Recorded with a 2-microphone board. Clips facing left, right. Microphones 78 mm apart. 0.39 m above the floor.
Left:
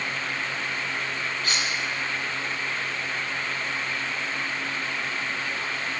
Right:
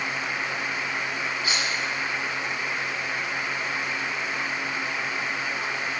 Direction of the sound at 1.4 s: 10° right (ahead or behind).